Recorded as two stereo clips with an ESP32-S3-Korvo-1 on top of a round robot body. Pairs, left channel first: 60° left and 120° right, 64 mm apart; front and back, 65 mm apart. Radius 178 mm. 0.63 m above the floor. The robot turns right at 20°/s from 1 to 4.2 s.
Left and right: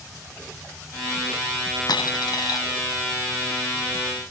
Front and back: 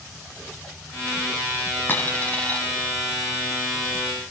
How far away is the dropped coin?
About 3 m.